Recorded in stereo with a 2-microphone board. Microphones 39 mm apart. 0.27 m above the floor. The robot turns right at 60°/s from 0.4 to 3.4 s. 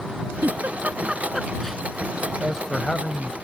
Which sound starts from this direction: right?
A giggle, at 0.4 s.